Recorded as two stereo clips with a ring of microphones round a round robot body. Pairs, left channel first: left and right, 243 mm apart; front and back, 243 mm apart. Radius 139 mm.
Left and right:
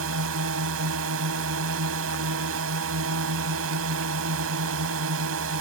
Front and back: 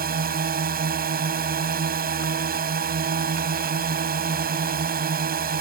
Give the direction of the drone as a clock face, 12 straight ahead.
4 o'clock.